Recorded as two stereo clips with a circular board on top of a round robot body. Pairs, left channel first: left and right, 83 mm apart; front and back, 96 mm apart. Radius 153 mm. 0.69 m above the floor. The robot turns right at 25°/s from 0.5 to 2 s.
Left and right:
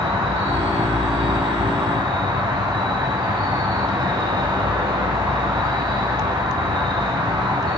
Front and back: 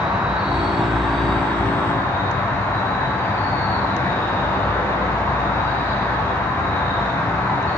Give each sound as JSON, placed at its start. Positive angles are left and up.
{"t": 0.0, "sound": "an insect", "azimuth_deg": -100, "distance_m": 4.0}